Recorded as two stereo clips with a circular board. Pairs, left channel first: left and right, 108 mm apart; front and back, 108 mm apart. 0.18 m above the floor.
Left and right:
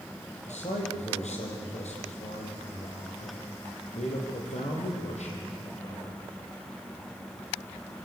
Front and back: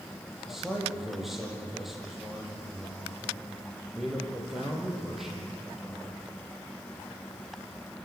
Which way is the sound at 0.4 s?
95° left.